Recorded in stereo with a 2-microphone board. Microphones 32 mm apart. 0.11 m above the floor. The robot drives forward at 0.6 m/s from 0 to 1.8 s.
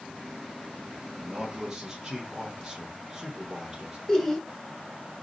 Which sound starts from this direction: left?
Laughter, at 4.1 s.